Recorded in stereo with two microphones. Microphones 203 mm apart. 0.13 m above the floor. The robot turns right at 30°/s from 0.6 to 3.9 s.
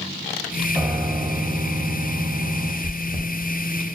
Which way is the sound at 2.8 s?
10° right (ahead or behind).